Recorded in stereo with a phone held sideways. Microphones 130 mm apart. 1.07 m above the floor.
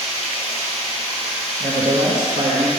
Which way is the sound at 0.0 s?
50° left (ahead or behind).